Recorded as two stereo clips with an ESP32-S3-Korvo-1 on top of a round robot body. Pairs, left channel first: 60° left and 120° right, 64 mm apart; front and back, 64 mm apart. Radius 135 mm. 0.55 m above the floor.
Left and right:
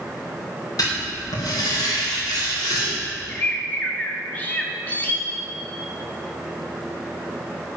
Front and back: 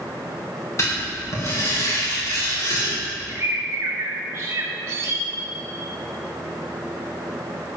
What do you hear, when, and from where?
0.8 s writing: 40° left, 4 m
3.3 s a bird: 130° left, 1.4 m